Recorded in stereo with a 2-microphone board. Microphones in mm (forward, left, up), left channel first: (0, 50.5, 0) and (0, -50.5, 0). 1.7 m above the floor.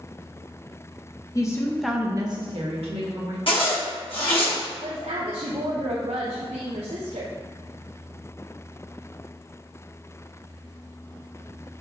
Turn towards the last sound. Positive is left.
turn(degrees=-85)